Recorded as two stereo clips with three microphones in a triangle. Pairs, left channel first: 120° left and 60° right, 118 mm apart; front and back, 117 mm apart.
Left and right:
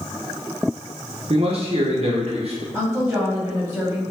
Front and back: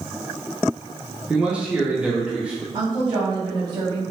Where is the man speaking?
100° right, 0.5 m.